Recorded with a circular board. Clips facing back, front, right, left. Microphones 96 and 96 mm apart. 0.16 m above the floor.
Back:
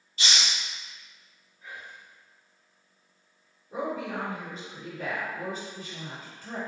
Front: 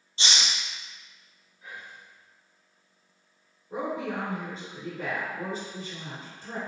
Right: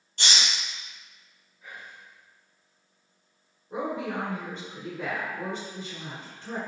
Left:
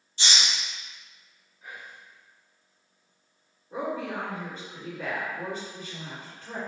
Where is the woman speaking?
35° right, 1.5 m.